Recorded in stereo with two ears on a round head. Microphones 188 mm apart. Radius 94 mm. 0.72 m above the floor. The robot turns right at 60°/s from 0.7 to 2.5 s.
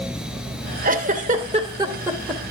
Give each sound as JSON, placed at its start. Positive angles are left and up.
{"t": 0.8, "sound": "a giggle", "side_deg": -40, "distance_m": 0.9}